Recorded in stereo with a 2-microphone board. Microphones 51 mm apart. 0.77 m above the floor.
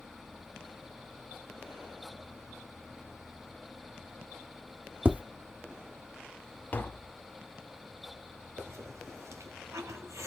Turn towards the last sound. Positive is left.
turn(degrees=-75)  # may be behind; listen again after turning